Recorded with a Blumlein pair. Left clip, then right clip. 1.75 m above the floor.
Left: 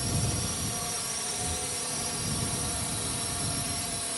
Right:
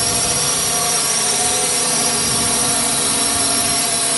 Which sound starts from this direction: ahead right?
A drone, at 0.0 s.